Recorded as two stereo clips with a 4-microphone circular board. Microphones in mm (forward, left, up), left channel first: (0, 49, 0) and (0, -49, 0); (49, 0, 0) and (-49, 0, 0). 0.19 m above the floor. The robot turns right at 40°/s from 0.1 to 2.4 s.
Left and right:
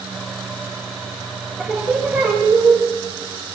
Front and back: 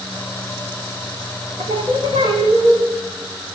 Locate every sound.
1.6 s singing: straight behind, 5.5 m; by 2.8 s 150° right, 5.5 m